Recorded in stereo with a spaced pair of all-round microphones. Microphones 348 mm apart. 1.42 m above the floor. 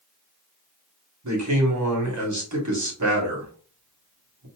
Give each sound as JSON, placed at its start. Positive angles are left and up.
{"t": 1.2, "sound": "a man speaking", "side_deg": -55, "distance_m": 1.4}